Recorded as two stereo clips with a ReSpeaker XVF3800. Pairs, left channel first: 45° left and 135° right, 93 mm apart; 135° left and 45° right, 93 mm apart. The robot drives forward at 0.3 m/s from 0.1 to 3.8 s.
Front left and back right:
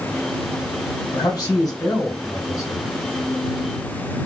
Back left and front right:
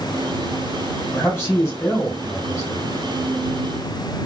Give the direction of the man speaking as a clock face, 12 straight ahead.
9 o'clock.